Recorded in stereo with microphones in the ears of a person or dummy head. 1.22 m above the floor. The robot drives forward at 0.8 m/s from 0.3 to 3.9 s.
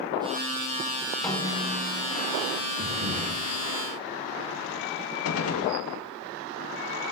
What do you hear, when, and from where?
1.2 s a snare drum: 10° left (ahead or behind), 4.5 m
2.8 s breathing: 45° right (ahead or behind), 2 m; by 3.4 s 50° right (ahead or behind), 1.9 m
5.2 s a gunshot: 85° left, 1.0 m